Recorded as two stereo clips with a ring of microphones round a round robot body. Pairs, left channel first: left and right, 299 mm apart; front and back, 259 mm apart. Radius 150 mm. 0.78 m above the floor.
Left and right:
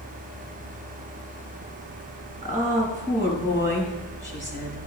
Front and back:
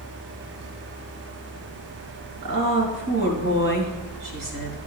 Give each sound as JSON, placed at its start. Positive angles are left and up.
{"t": 2.4, "sound": "a woman speaking", "azimuth_deg": -155, "distance_m": 4.0}